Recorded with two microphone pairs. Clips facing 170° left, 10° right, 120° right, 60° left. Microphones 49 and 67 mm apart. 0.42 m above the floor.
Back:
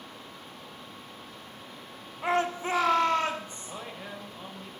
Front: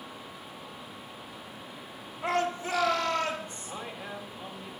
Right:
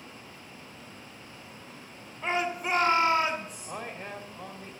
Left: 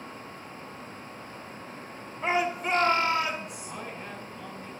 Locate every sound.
2.2 s a shout: 130° left, 1.3 m; by 3.7 s 145° right, 1.6 m
3.6 s a man speaking: 105° right, 2.0 m